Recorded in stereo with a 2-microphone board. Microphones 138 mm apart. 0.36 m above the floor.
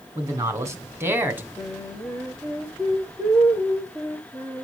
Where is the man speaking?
25° right (ahead or behind), 3 m; by 1.5 s 15° right (ahead or behind), 2.5 m.